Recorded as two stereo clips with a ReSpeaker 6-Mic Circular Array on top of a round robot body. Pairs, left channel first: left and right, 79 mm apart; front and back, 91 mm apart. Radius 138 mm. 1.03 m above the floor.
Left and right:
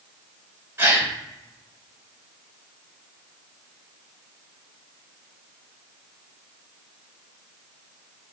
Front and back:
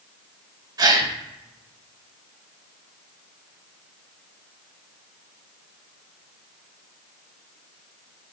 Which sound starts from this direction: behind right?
A gasp, at 0.8 s.